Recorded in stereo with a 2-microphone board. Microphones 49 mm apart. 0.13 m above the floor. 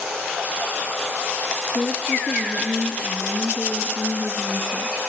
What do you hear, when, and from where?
1.6 s a woman speaking: centre (ahead or behind), 1.5 m